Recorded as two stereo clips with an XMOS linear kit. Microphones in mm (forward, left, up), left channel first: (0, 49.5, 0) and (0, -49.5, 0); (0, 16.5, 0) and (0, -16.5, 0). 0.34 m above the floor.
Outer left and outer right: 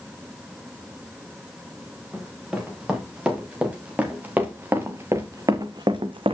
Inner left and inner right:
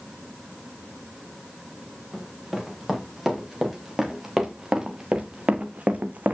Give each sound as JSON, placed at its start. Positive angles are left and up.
{"t": 2.1, "sound": "running footsteps", "side_deg": -5, "distance_m": 5.5}